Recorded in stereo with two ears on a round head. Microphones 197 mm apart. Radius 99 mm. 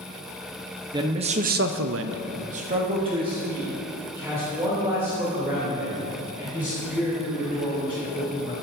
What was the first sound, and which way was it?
A man speaking, 20° right (ahead or behind).